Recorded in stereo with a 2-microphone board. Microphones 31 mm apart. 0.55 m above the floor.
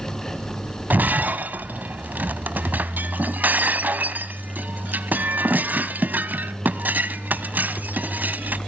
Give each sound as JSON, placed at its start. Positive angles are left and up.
{"t": 0.9, "sound": "breaking glass", "side_deg": -75, "distance_m": 0.8}